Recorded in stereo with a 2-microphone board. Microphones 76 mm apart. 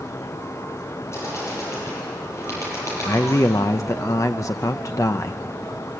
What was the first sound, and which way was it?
A bird, 40° left (ahead or behind).